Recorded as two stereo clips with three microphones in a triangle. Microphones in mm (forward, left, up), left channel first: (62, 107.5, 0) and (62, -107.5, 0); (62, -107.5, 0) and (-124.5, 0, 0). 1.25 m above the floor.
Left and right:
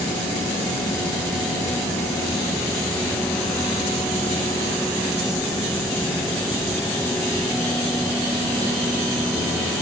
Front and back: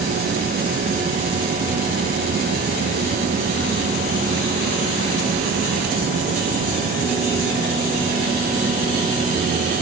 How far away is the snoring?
I don't hear snoring.